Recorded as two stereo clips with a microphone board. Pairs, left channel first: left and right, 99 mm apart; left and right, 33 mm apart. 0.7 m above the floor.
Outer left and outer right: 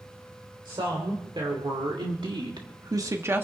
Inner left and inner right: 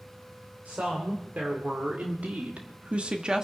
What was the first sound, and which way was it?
A woman speaking, 55° right (ahead or behind).